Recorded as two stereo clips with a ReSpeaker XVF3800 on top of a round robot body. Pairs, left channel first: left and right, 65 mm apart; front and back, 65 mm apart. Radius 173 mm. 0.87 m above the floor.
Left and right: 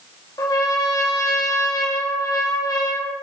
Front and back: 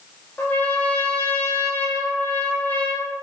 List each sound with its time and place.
0.4 s a trumpet: 65° left, 1.7 m